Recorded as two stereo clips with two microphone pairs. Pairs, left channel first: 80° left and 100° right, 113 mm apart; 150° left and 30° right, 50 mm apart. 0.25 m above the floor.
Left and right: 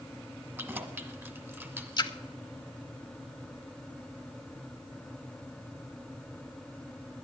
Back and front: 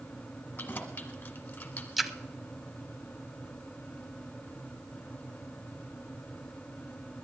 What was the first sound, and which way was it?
Keys jangling, 160° right.